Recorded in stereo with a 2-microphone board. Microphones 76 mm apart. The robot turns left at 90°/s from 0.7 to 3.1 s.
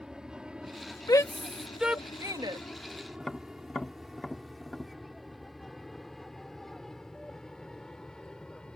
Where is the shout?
60° left (ahead or behind); by 2.6 s 75° right (ahead or behind).